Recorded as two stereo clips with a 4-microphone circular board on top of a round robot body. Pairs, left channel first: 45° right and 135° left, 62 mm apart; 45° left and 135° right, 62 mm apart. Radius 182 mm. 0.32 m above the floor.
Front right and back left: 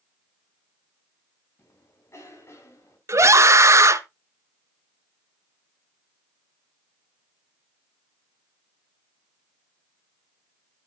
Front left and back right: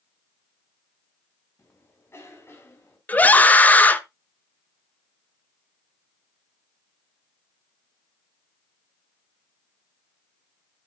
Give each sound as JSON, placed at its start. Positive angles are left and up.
{"t": 1.6, "sound": "a cough", "azimuth_deg": -5, "distance_m": 4.5}
{"t": 3.1, "sound": "a scream", "azimuth_deg": 105, "distance_m": 1.6}